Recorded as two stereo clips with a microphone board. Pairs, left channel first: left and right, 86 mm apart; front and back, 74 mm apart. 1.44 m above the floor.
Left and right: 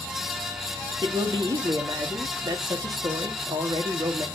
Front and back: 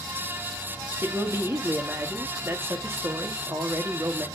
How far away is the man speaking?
About 1.5 m.